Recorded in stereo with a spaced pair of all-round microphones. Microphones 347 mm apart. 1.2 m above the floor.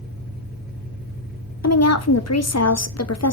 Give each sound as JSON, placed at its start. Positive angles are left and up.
{"t": 0.0, "sound": "an engine running", "side_deg": 30, "distance_m": 5.0}
{"t": 1.6, "sound": "a woman speaking", "side_deg": 45, "distance_m": 0.7}